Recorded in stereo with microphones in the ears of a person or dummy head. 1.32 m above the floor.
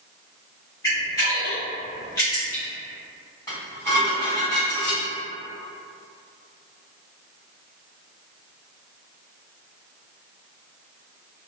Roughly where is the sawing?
I don't hear sawing.